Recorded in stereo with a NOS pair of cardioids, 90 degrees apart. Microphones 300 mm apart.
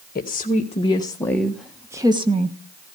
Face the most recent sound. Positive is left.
turn(degrees=-25)